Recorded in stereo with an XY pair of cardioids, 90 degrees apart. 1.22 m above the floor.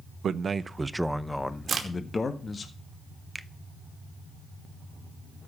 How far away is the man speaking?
About 0.8 m.